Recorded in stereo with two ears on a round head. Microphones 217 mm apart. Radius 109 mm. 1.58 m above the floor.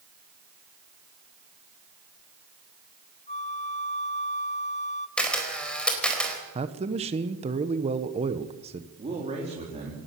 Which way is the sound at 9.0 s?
25° right (ahead or behind).